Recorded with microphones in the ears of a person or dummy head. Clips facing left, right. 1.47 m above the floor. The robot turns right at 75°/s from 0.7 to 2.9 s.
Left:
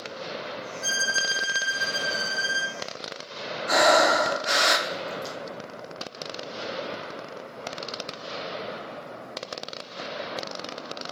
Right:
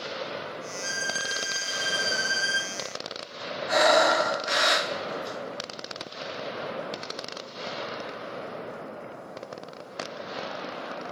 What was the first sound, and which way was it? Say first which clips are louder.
A violin: left 1 dB; 105° left.